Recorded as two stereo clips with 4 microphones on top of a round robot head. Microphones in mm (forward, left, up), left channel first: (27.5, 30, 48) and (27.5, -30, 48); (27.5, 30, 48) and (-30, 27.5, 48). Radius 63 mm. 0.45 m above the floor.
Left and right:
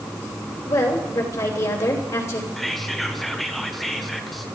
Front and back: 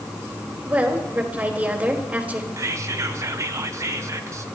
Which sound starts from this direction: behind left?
A woman speaking, at 0.7 s.